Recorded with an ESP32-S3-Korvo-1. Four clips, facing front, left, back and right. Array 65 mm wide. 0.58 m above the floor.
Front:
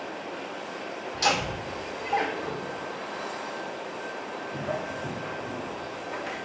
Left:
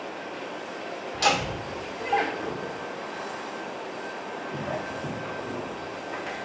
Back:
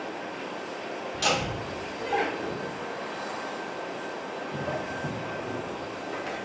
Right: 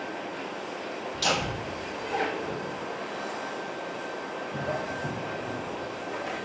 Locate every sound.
1.1 s laughter: 100° left, 2.5 m; by 6.4 s 135° left, 5.5 m